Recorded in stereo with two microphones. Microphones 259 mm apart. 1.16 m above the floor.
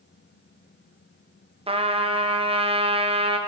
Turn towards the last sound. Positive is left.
turn(degrees=-20)  # may be behind; listen again after turning